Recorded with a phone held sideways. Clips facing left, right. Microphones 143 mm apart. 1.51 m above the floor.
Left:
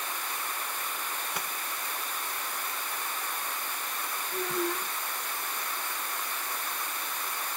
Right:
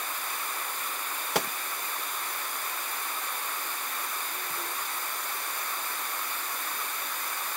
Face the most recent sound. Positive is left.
turn(degrees=70)  # may be behind; listen again after turning